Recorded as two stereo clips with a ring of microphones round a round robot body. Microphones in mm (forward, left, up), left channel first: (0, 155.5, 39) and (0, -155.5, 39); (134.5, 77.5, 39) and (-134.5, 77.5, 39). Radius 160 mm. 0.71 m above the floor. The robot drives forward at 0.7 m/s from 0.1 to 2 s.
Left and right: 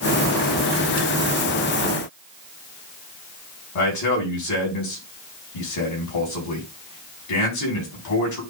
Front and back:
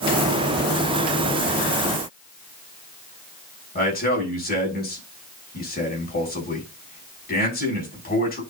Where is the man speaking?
55° left, 5.5 m.